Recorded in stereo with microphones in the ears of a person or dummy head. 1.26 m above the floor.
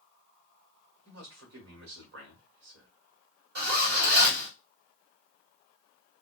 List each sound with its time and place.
1.1 s a man speaking: 70° right (ahead or behind), 1.4 m
3.5 s a zipper: 55° right (ahead or behind), 1.2 m